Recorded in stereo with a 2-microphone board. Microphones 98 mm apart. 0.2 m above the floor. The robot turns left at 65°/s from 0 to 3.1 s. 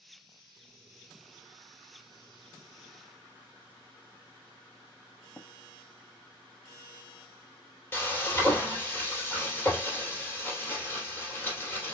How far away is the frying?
About 2.5 m.